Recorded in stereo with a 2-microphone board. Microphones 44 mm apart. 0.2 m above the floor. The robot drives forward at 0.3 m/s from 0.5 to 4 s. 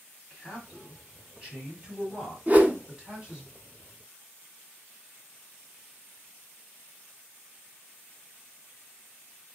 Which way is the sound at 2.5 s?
35° right (ahead or behind).